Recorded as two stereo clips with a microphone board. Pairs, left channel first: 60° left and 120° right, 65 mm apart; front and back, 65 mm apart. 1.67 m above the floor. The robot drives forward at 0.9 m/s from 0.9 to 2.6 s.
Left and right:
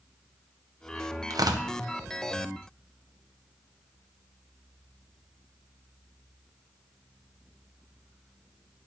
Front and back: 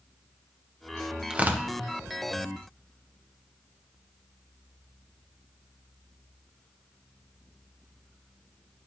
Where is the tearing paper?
100° right, 0.6 m; by 1.6 s 125° right, 0.8 m.